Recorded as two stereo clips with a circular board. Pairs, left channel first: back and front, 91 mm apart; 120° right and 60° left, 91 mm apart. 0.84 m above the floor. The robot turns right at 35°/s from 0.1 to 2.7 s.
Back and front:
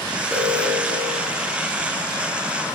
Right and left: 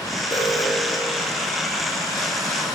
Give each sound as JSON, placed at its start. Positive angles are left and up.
{"t": 0.3, "sound": "an alarm", "azimuth_deg": -85, "distance_m": 4.0}